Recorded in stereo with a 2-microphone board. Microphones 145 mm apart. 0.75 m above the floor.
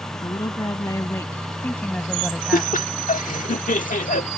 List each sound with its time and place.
0.1 s a woman speaking: 30° left (ahead or behind); by 3.0 s 15° right (ahead or behind)
2.5 s laughter: 70° left (ahead or behind)